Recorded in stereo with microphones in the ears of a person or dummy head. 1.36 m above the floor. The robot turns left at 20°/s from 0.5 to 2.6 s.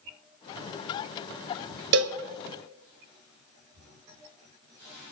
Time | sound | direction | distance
1.9 | a cowbell | 65° right (ahead or behind) | 0.7 m